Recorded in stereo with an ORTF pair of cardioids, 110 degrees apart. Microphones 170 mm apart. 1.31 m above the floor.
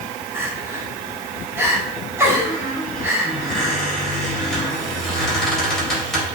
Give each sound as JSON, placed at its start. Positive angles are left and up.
{"t": 0.3, "sound": "crying", "azimuth_deg": -15, "distance_m": 2.5}
{"t": 2.5, "sound": "a squeak", "azimuth_deg": 5, "distance_m": 4.0}